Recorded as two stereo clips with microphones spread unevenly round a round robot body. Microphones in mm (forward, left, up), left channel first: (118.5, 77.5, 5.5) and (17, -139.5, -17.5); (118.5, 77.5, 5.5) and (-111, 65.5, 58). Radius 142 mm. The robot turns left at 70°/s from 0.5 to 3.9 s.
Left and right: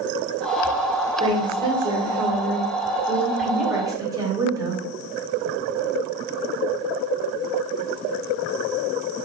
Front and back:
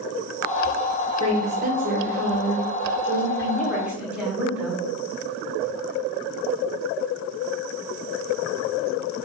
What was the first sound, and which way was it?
A woman speaking, 110° right.